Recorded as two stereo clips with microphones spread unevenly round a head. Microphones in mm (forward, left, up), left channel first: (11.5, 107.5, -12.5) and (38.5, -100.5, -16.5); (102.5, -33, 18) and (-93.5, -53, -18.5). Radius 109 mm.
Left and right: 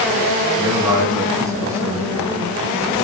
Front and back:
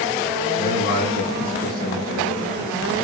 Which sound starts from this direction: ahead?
A man speaking, at 0.6 s.